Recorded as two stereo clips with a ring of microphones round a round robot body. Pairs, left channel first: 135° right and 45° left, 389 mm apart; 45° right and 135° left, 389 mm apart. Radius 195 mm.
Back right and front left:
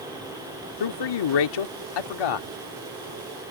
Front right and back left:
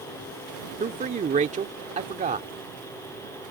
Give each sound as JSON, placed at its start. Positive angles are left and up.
{"t": 0.8, "sound": "a man speaking", "azimuth_deg": -155}